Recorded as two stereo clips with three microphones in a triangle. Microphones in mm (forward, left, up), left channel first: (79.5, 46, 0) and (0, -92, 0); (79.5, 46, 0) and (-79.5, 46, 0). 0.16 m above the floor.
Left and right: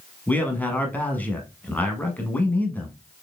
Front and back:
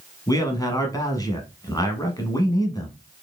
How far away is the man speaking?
About 1.0 m.